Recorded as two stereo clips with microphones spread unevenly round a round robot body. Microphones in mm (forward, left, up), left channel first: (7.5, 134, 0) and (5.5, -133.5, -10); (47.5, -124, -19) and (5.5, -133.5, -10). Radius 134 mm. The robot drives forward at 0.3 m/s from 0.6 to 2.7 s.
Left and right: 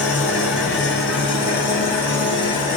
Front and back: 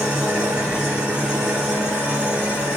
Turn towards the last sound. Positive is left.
turn(degrees=150)